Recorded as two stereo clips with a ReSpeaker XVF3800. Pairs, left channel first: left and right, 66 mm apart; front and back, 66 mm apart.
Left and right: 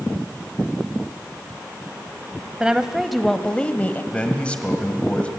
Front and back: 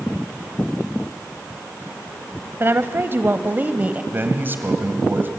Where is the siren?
I don't hear a siren.